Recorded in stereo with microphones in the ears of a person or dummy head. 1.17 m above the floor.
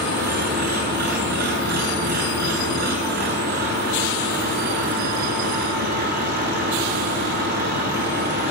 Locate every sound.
0.0 s an engine running: 55° right (ahead or behind), 9.5 m